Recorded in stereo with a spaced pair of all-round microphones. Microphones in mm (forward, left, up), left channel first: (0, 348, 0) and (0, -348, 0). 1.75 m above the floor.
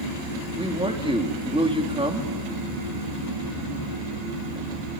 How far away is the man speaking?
About 3.5 m.